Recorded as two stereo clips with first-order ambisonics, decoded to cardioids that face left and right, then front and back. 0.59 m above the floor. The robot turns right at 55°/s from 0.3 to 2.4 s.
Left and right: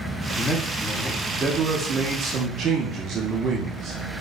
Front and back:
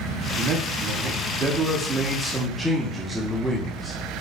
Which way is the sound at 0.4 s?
160° left.